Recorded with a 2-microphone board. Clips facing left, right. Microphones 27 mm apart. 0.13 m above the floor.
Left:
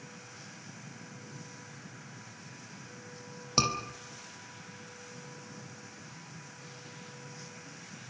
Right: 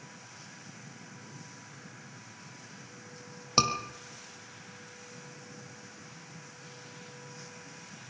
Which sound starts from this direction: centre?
A scream, at 3.6 s.